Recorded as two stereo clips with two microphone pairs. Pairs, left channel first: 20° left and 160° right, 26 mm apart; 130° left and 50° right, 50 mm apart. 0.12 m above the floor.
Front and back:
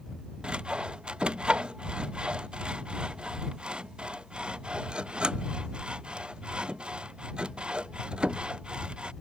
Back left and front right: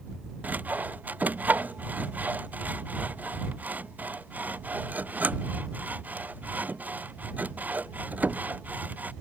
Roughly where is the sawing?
Right.